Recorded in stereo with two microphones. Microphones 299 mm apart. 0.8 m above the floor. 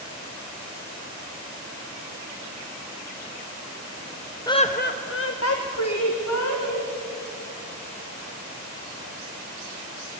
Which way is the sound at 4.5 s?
10° left (ahead or behind).